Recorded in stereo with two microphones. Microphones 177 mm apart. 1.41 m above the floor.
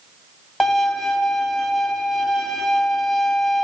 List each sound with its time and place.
0.6 s a violin: centre (ahead or behind), 1.2 m